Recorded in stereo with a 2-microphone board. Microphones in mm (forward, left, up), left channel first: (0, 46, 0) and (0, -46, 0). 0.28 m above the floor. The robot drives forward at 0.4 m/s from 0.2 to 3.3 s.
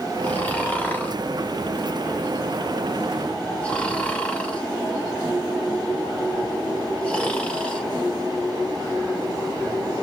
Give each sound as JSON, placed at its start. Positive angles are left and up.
{"t": 0.2, "sound": "snoring", "side_deg": 20, "distance_m": 1.0}